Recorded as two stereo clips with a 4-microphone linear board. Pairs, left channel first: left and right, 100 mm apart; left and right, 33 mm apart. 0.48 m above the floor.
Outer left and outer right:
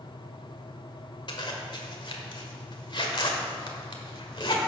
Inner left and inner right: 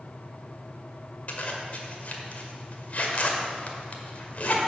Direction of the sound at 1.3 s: 50° left (ahead or behind).